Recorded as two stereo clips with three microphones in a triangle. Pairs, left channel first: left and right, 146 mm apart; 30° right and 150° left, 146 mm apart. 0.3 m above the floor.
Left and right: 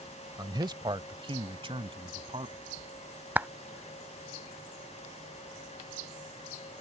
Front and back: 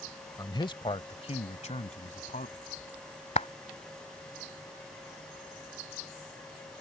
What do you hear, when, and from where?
0.4 s a man speaking: 60° right; by 2.5 s 45° right
3.4 s a clap: 15° right